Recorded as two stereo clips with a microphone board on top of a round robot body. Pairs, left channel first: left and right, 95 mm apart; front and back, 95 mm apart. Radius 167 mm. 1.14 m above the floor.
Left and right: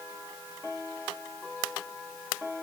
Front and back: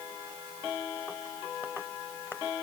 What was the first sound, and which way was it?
Only background noise.